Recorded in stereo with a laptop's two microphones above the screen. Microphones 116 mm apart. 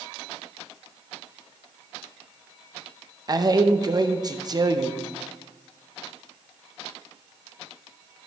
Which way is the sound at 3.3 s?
35° right (ahead or behind).